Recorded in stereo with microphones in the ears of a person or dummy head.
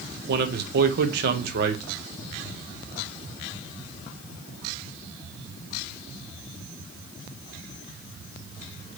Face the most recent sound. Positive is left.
turn(degrees=-60)  # may be behind; listen again after turning